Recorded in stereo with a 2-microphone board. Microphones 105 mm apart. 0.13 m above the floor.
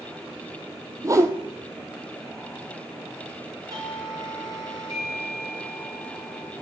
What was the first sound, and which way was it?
A whoosh, 30° right (ahead or behind).